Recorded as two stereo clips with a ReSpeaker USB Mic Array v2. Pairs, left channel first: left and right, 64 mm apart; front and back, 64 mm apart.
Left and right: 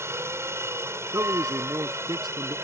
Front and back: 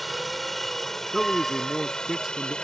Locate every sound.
0.0 s a helicopter: 90° right; by 2.6 s 70° right
1.1 s a man speaking: 95° right